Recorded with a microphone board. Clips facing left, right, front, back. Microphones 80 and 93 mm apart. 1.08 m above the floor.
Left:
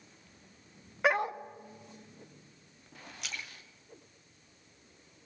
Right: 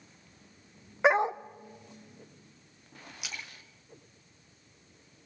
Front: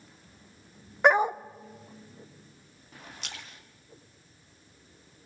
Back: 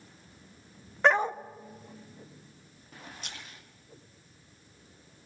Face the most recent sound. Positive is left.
turn(degrees=-5)